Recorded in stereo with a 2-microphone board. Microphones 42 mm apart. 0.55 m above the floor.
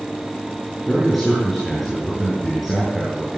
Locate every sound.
0.9 s a man speaking: centre (ahead or behind), 9.5 m